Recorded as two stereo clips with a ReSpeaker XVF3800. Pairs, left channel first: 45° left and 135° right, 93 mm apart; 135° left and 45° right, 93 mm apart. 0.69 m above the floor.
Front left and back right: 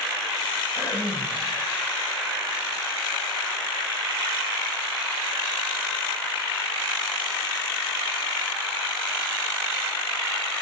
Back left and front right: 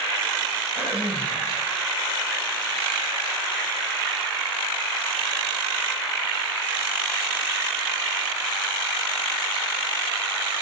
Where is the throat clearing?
25° left, 9.5 m.